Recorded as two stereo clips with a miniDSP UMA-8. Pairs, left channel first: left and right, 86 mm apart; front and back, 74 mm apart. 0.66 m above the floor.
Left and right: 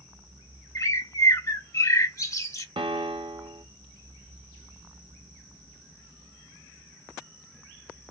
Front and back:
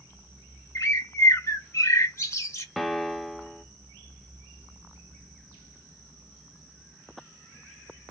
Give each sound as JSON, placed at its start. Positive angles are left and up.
{"t": 0.8, "sound": "a bird", "azimuth_deg": 45, "distance_m": 0.8}
{"t": 2.8, "sound": "a piano", "azimuth_deg": -90, "distance_m": 0.5}